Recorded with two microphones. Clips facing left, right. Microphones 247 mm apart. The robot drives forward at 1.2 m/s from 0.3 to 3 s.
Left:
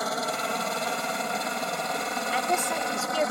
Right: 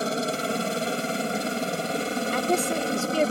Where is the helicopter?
30° right (ahead or behind); by 3.3 s 35° right (ahead or behind).